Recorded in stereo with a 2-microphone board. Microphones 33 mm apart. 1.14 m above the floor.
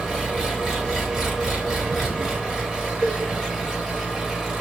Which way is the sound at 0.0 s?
10° right (ahead or behind).